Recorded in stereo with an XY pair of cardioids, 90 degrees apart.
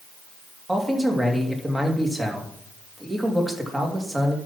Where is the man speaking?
15° right, 2.5 m.